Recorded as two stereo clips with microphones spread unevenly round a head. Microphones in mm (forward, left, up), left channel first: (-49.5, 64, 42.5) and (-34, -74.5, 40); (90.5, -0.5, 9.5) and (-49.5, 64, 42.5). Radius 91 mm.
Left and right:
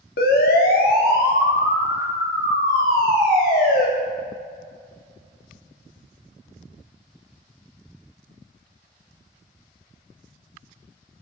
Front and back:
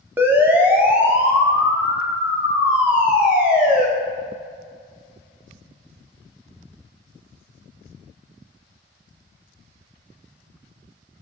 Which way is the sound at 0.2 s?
75° left.